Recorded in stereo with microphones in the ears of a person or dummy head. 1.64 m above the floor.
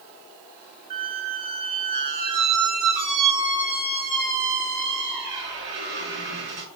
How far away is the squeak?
About 0.7 m.